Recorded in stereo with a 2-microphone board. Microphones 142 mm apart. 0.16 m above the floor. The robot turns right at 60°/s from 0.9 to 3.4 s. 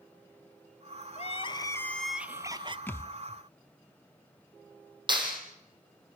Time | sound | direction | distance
1.2 | crying | 125° left | 0.8 m
2.9 | a thud | 15° left (ahead or behind) | 0.6 m
5.1 | a clap | 35° right (ahead or behind) | 4 m